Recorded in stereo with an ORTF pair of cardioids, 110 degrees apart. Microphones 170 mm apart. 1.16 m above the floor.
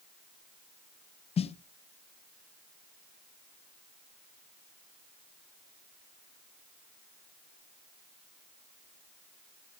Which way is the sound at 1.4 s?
35° left.